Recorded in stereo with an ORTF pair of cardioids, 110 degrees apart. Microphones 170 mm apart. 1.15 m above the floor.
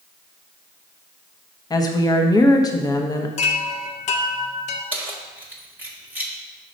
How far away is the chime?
About 0.8 m.